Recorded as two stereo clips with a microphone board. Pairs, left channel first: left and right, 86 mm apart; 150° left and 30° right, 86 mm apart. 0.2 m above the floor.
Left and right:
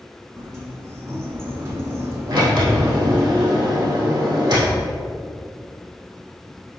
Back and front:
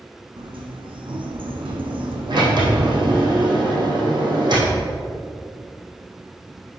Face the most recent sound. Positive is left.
turn(degrees=-65)